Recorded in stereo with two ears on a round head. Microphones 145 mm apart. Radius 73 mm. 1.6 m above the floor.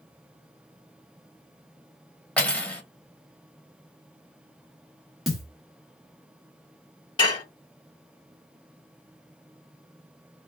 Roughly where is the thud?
Centre.